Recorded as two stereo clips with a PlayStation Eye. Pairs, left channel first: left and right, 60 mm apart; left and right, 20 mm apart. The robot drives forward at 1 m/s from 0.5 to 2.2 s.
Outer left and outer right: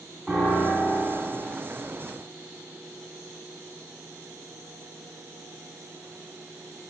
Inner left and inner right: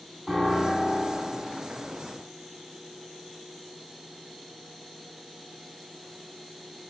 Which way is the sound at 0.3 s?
20° right (ahead or behind).